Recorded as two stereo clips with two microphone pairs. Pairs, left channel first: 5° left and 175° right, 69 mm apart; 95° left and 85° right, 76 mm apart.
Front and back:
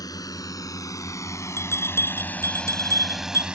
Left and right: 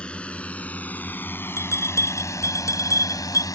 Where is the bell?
55° left.